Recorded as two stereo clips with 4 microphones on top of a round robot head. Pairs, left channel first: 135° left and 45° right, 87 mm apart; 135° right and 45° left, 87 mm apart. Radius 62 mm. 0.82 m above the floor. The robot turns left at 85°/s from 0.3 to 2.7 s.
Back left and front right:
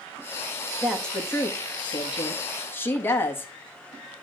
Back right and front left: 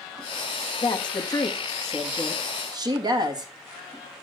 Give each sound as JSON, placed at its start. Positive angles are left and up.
{"t": 0.8, "sound": "a woman speaking", "azimuth_deg": -125, "distance_m": 1.5}